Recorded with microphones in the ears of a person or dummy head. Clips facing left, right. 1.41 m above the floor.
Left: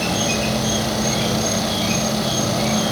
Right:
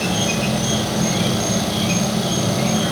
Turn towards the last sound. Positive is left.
turn(degrees=-30)  # may be behind; listen again after turning